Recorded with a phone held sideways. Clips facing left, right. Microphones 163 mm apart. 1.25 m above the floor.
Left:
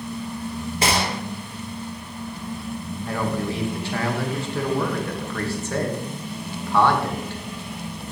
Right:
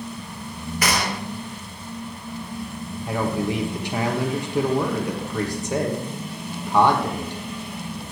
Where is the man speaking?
20° right (ahead or behind), 1.8 m.